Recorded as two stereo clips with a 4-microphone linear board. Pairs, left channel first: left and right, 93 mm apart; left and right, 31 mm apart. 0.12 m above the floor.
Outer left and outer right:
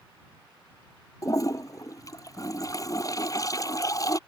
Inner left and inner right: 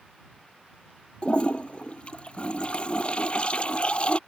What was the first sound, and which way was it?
A toilet flushing, 40° left (ahead or behind).